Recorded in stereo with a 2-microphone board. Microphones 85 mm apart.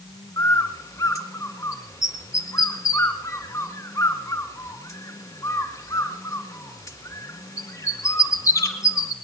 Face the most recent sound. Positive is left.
turn(degrees=40)  # may be behind; listen again after turning